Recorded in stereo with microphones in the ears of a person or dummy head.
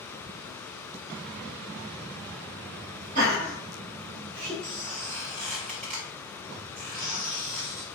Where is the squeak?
40° right (ahead or behind), 2.0 m.